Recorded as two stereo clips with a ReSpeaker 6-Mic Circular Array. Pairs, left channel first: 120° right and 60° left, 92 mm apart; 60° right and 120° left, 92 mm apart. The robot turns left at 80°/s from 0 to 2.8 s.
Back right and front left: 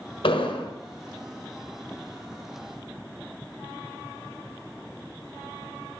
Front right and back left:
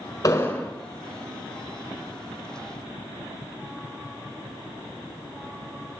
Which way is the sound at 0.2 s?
110° right.